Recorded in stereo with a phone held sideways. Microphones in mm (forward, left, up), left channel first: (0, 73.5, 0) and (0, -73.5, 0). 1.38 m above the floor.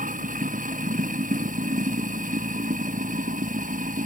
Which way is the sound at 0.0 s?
55° right (ahead or behind).